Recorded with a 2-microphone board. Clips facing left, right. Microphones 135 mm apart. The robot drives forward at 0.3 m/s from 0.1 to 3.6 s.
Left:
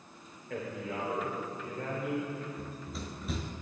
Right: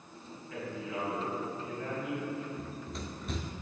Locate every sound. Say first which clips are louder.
0.5 s a man speaking: left 1 dB; 75° left (ahead or behind), 2 m; by 2.5 s 65° left (ahead or behind), 2.5 m
2.6 s running footsteps: right 1 dB; centre (ahead or behind), 0.7 m